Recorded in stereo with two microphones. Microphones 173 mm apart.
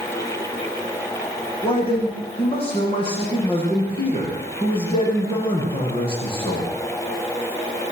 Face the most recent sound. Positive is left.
turn(degrees=30)  # may be behind; listen again after turning